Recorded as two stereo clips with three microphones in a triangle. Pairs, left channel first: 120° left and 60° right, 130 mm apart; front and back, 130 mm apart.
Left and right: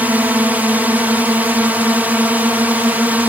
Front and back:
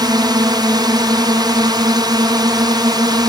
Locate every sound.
0.0 s a drone: 135° right